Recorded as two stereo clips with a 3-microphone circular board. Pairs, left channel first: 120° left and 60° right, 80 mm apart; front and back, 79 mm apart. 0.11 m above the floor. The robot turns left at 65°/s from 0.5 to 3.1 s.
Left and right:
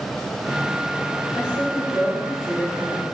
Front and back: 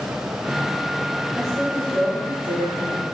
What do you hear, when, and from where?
1.3 s a woman speaking: 90° right, 4 m; by 3.0 s 160° left, 4 m